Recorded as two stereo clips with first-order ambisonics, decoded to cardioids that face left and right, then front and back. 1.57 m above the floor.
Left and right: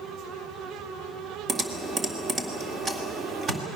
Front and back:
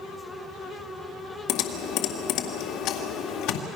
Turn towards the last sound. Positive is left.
turn(degrees=-25)